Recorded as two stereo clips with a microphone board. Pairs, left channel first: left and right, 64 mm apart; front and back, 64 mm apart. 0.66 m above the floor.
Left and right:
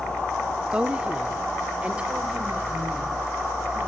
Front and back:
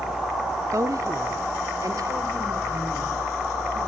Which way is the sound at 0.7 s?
160° right.